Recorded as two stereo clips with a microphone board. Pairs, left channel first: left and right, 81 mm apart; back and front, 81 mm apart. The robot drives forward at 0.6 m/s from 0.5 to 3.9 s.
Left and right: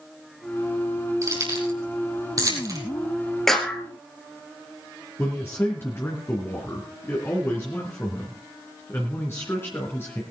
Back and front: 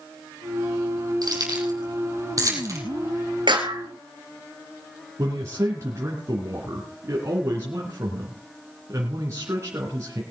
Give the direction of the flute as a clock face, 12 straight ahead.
No flute in this recording.